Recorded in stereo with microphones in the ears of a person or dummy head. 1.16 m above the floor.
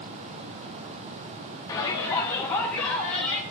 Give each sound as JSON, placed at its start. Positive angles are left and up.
{"t": 1.7, "sound": "a shout", "side_deg": 20, "distance_m": 1.8}